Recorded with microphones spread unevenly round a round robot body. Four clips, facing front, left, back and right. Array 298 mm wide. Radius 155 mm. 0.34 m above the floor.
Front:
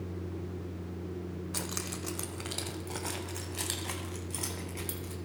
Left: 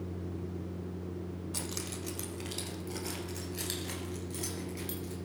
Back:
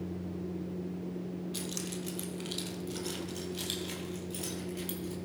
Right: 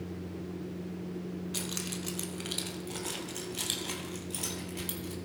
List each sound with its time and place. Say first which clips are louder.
1.5 s keys jangling: right 2 dB, even; 10° left, 1.1 m; by 5.2 s 15° right, 2.5 m